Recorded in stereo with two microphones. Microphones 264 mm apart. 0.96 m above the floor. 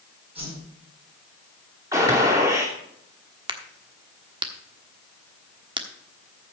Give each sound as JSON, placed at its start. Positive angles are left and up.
{"t": 0.3, "sound": "a whoosh", "side_deg": -20, "distance_m": 7.5}
{"t": 1.9, "sound": "a gunshot", "side_deg": -10, "distance_m": 2.5}
{"t": 3.5, "sound": "a crack", "side_deg": -20, "distance_m": 1.2}